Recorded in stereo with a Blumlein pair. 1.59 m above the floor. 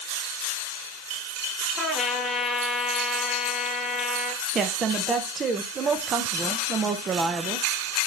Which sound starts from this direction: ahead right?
A woman speaking, at 4.5 s.